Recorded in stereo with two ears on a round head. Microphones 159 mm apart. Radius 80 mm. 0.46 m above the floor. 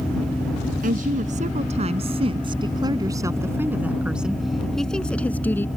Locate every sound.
0.8 s a woman speaking: 50° right (ahead or behind); by 5.7 s 15° left (ahead or behind)